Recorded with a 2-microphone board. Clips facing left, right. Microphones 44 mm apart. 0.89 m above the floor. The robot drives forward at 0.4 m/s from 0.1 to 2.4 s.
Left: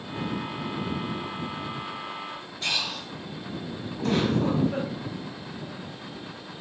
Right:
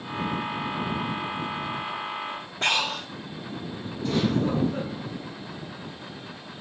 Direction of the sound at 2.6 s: 50° right (ahead or behind).